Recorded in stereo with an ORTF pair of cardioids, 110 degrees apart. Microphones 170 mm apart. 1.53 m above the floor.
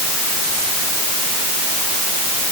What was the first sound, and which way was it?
Only background noise.